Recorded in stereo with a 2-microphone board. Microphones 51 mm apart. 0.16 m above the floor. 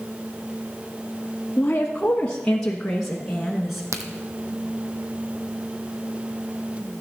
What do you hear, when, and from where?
1.6 s a woman speaking: 30° left (ahead or behind), 1.2 m; by 3.8 s 5° right (ahead or behind), 1.7 m
3.9 s a crack: 80° right, 1.2 m